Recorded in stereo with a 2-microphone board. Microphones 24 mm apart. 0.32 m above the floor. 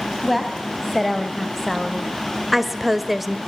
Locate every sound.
0.2 s a woman speaking: centre (ahead or behind), 1.7 m; by 3.4 s 5° right (ahead or behind), 0.9 m